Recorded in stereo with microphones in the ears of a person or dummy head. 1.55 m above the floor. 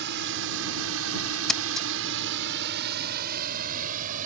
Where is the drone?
60° right (ahead or behind); by 4.3 s 45° right (ahead or behind).